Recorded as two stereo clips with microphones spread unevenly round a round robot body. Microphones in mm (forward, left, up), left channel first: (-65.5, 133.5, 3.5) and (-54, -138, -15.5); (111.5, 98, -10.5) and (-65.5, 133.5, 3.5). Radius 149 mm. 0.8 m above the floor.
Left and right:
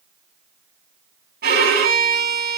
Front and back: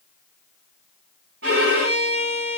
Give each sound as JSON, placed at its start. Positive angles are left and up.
{"t": 1.4, "sound": "a violin", "azimuth_deg": -145, "distance_m": 3.5}